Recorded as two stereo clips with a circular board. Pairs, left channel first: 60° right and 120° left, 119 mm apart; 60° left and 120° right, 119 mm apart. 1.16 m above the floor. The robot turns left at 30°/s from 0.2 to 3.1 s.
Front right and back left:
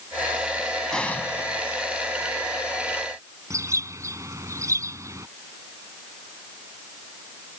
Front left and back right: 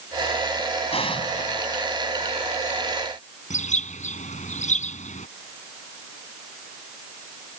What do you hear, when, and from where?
0.9 s an explosion: 25° left; by 1.8 s 5° right
3.5 s a bird: 55° left